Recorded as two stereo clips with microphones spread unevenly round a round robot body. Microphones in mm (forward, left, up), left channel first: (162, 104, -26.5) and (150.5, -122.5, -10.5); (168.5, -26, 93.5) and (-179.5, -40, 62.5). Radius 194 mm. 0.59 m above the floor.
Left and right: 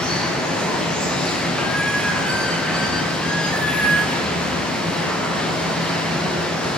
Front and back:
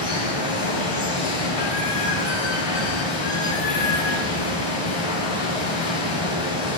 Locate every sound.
0.0 s running water: straight ahead, 7.5 m